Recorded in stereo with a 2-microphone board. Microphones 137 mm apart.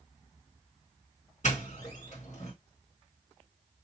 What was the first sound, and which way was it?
A doorbell, 55° left (ahead or behind).